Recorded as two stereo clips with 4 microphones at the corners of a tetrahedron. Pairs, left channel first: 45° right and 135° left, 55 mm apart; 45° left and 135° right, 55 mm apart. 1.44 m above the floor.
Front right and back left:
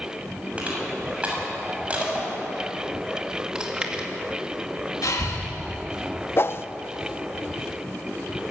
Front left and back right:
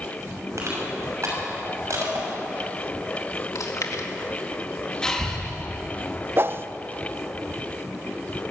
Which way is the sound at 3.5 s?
60° left.